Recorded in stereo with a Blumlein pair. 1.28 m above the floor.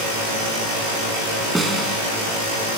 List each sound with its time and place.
1.6 s a snare drum: 5° right, 4 m